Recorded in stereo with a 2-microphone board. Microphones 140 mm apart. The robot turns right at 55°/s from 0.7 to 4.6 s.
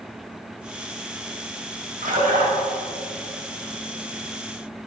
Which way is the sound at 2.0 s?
70° right (ahead or behind).